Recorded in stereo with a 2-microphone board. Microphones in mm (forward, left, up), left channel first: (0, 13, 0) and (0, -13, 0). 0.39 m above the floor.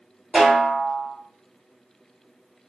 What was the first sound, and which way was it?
A snare drum, 45° right (ahead or behind).